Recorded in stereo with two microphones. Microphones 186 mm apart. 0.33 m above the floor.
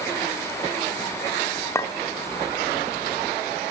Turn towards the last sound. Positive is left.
turn(degrees=15)  # may be behind; listen again after turning